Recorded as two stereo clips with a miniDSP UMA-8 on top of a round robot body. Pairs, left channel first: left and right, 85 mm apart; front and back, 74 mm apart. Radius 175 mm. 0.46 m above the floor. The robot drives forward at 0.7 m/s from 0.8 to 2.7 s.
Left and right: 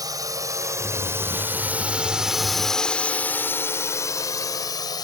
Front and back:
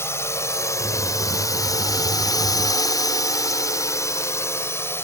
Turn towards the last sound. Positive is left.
turn(degrees=55)